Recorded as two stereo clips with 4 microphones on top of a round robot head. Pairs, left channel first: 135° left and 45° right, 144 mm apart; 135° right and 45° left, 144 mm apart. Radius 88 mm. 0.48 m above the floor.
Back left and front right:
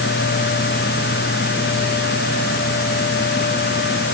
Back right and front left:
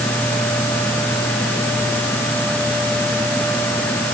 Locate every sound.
Only background noise.